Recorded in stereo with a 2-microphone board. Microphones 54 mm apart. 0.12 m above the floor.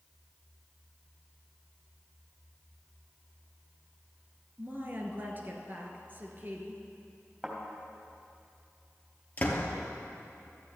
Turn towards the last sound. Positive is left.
turn(degrees=30)  # may be behind; listen again after turning